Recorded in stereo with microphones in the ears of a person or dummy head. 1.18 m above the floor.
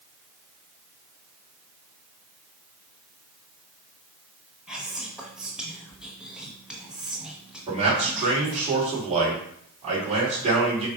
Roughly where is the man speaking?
Right.